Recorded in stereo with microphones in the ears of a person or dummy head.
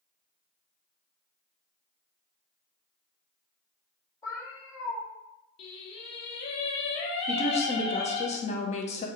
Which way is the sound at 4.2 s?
20° left (ahead or behind).